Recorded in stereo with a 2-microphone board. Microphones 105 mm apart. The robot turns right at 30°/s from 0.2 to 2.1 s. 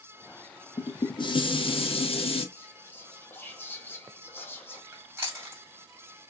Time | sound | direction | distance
0.8 | dishes clattering | 45° left | 0.6 m
2.5 | whispering | 20° left (ahead or behind) | 1.2 m
4.9 | chewing | 25° right (ahead or behind) | 1.7 m